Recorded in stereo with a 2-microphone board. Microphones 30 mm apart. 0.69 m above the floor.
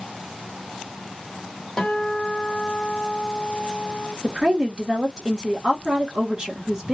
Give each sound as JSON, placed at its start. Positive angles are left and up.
{"t": 1.8, "sound": "a guitar", "side_deg": 20, "distance_m": 1.7}
{"t": 4.2, "sound": "a woman speaking", "side_deg": -20, "distance_m": 1.2}